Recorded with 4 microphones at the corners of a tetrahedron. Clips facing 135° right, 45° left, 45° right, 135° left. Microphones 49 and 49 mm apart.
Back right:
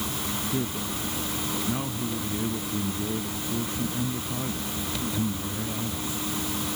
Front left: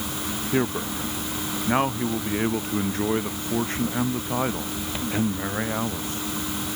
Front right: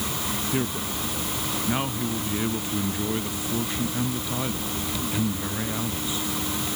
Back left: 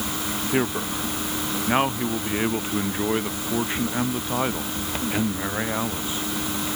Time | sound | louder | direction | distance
0.5 | a man speaking | front left 10 dB, back left 6 dB | 75° left | ?